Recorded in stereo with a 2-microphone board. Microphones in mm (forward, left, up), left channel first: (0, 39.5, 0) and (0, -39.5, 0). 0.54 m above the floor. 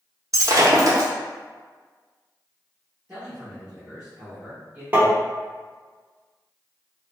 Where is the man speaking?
15° right (ahead or behind), 1.1 m.